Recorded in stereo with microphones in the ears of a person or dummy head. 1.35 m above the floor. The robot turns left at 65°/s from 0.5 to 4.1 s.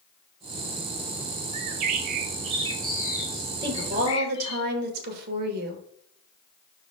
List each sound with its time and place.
1.5 s a bird: 65° right, 0.5 m; by 4.6 s 130° left, 0.5 m
3.6 s a woman speaking: 25° right, 1.7 m; by 5.8 s 55° right, 1.7 m